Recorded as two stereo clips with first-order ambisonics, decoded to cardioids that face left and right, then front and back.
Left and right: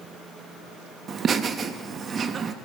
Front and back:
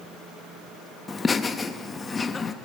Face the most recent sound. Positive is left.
turn(degrees=-60)